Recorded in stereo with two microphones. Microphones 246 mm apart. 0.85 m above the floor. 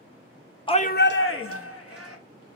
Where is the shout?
20° left (ahead or behind), 0.6 m; by 2.2 s 65° left (ahead or behind), 1.3 m.